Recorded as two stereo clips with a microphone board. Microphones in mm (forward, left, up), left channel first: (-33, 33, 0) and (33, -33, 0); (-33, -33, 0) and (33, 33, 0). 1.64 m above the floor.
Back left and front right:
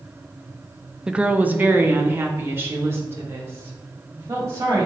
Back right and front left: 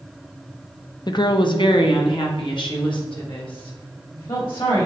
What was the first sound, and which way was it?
A woman speaking, 125° right.